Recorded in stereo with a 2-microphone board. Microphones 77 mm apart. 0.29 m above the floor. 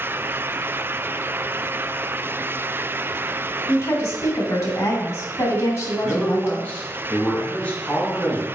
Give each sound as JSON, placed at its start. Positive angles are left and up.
{"t": 3.7, "sound": "a woman speaking", "side_deg": 50, "distance_m": 2.5}
{"t": 6.0, "sound": "a man speaking", "side_deg": 20, "distance_m": 3.0}